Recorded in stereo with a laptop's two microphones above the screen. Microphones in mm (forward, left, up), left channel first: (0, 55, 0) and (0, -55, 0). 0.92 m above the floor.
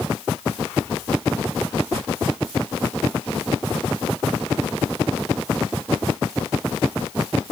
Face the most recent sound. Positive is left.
No sound to turn to.